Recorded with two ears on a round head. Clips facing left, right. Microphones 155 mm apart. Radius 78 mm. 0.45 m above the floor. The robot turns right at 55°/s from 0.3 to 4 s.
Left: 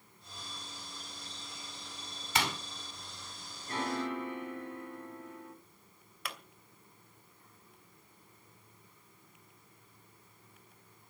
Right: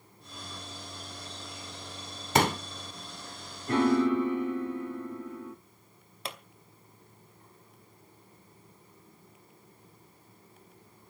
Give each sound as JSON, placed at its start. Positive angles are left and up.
{"t": 2.4, "sound": "a pop", "side_deg": -40, "distance_m": 1.1}
{"t": 3.7, "sound": "a piano", "side_deg": -50, "distance_m": 1.8}
{"t": 6.2, "sound": "a pop", "side_deg": -25, "distance_m": 2.5}